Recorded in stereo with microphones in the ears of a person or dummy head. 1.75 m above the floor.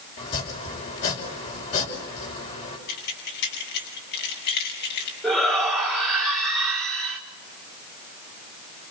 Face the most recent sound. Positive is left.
turn(degrees=0)  # may be behind; listen again after turning